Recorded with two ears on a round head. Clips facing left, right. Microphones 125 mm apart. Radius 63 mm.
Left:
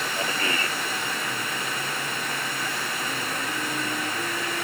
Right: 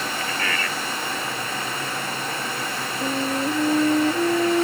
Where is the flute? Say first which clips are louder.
Right 7 dB; 35° right (ahead or behind).